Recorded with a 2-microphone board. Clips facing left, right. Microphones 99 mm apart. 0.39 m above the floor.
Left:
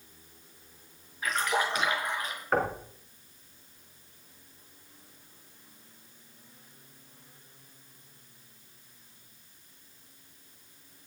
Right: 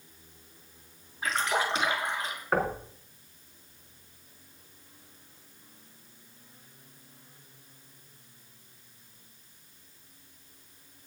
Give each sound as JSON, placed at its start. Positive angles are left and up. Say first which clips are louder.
{"t": 1.2, "sound": "a splash", "louder": "even", "side_deg": -30, "distance_m": 5.5}
{"t": 2.5, "sound": "knocking", "louder": "even", "side_deg": -5, "distance_m": 4.0}